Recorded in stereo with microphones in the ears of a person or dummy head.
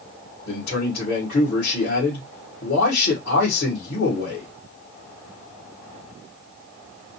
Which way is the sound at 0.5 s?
65° left (ahead or behind).